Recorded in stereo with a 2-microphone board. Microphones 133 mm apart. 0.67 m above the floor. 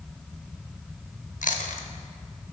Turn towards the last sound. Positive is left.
turn(degrees=75)  # may be behind; listen again after turning